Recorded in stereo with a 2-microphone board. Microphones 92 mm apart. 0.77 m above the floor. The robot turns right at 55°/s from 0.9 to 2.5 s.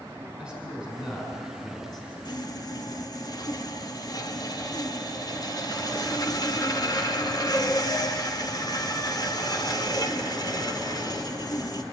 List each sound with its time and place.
0.4 s a man speaking: 10° right, 5.5 m; by 2.1 s 60° left, 5.5 m
2.2 s sawing: 50° left (ahead or behind), 1.5 m; by 11.8 s 45° left (ahead or behind), 1.5 m